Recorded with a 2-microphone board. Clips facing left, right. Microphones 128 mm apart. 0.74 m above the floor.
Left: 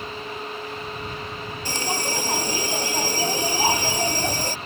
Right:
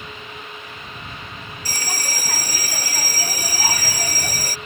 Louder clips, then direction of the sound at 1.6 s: Left 5 dB; 25° left (ahead or behind).